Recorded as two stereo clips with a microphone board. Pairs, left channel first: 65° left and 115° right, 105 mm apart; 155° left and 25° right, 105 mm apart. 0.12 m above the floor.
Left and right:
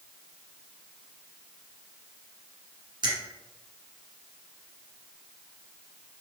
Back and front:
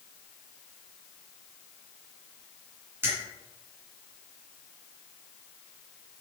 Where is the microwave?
I don't hear a microwave.